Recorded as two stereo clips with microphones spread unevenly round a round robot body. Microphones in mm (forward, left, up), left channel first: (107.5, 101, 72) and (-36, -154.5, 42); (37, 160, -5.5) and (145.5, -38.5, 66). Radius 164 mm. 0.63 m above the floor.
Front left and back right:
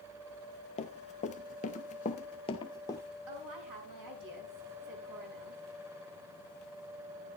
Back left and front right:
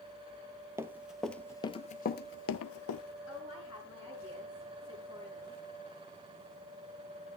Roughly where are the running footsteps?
Ahead.